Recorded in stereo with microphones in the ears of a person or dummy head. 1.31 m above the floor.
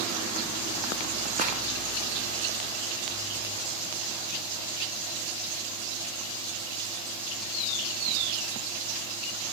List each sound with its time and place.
1.4 s a rattle: 45° left (ahead or behind), 2.5 m